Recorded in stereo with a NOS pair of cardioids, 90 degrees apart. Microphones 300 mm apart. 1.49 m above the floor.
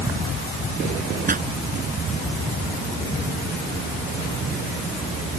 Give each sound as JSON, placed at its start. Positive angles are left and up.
{"t": 1.3, "sound": "a pop", "azimuth_deg": -30}